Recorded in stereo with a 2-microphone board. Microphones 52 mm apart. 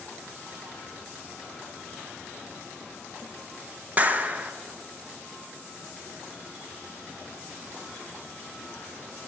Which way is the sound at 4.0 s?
30° right (ahead or behind).